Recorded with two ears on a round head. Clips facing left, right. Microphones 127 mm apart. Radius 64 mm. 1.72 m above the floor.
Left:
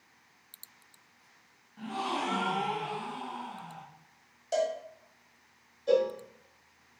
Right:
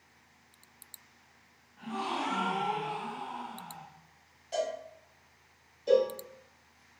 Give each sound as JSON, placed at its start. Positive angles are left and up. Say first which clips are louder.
{"t": 1.8, "sound": "a gasp", "louder": "left 1 dB", "side_deg": 35, "distance_m": 0.5}
{"t": 4.5, "sound": "a cowbell", "louder": "left 4 dB", "side_deg": 55, "distance_m": 0.9}
{"t": 5.9, "sound": "a cowbell", "louder": "right 1 dB", "side_deg": -20, "distance_m": 1.1}